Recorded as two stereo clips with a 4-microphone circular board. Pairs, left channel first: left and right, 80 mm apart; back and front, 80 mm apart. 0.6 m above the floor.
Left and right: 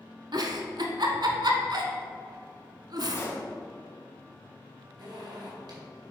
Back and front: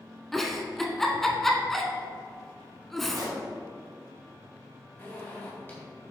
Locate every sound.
0.3 s a giggle: 95° right, 0.9 m
3.1 s a pop: 35° left, 1.5 m
5.0 s a zipper: 115° right, 2.5 m